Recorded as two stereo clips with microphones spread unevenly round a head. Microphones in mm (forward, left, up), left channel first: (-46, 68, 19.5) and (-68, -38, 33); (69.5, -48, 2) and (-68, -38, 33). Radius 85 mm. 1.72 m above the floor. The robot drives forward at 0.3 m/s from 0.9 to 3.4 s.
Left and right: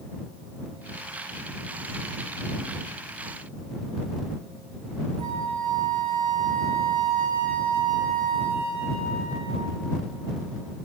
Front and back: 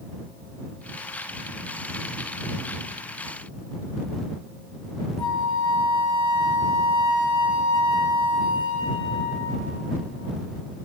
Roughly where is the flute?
Ahead right.